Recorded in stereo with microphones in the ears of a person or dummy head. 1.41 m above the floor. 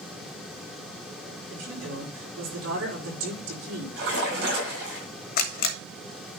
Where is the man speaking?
70° right (ahead or behind), 4.5 m.